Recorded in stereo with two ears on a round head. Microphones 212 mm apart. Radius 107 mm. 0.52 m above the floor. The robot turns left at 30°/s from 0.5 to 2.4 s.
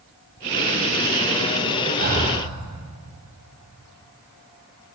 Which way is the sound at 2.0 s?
40° right (ahead or behind).